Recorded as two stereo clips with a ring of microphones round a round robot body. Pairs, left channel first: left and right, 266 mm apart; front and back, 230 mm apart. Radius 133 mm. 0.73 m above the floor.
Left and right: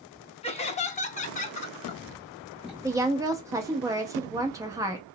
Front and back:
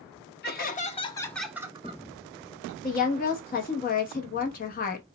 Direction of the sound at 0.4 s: 30° left.